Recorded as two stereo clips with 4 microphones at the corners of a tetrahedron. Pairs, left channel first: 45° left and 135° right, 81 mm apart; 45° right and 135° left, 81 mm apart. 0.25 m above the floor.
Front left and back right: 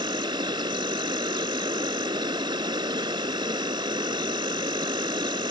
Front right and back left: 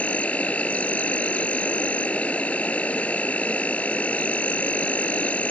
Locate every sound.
0.0 s an insect: 120° right